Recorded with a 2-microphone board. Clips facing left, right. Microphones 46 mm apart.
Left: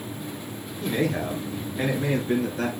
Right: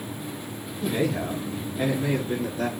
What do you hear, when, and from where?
0.8 s a man speaking: 50° left (ahead or behind), 5 m; by 2.7 s 65° left (ahead or behind), 5.5 m